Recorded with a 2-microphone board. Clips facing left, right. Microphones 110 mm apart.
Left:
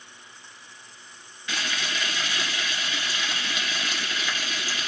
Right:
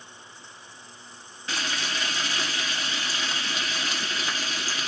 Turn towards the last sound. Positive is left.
turn(degrees=-35)  # may be behind; listen again after turning